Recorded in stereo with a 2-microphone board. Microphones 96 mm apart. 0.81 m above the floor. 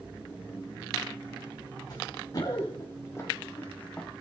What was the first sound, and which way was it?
Running footsteps, 45° left (ahead or behind).